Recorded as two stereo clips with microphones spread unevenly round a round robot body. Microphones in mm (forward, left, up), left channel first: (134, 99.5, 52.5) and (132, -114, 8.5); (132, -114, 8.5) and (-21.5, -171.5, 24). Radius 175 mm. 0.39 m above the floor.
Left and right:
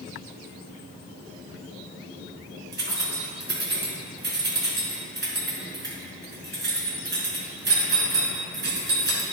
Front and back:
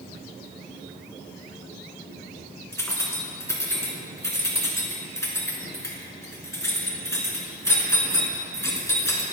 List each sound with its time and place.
2.7 s keys jangling: 55° right, 4 m